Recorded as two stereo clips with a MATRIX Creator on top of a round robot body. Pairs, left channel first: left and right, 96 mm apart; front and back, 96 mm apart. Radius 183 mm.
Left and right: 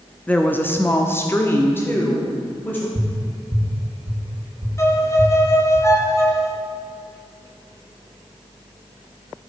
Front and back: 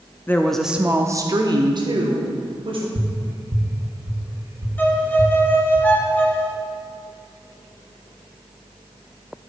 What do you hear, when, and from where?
0.3 s a woman speaking: 30° left, 0.9 m; by 2.9 s 160° left, 2 m
3.0 s tapping: 115° right, 1.7 m
4.8 s a violin: 55° left, 1.5 m